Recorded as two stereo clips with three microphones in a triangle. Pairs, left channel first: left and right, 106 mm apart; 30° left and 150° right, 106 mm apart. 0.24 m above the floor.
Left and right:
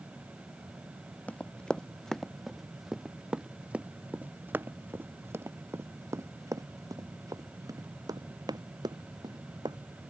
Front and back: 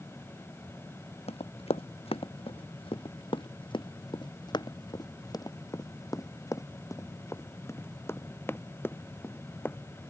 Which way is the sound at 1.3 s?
15° left.